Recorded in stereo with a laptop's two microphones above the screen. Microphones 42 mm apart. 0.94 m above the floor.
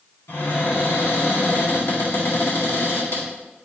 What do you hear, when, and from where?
0.3 s a cupboard door: 75° left (ahead or behind), 2.0 m